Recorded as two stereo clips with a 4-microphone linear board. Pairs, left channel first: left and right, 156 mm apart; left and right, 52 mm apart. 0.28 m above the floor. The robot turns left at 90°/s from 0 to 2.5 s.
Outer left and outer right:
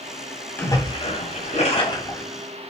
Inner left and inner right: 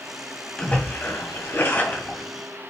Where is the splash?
165° left, 2 m; by 2.2 s 15° left, 2 m.